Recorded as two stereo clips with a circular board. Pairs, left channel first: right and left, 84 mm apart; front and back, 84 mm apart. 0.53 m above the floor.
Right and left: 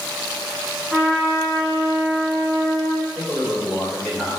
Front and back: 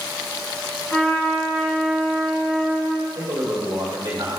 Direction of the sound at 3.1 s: 175° left.